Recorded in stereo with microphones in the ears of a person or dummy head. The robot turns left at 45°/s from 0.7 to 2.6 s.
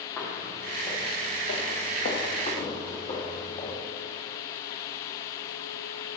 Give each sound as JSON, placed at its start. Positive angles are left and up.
{"t": 0.2, "sound": "footsteps", "side_deg": 10, "distance_m": 3.5}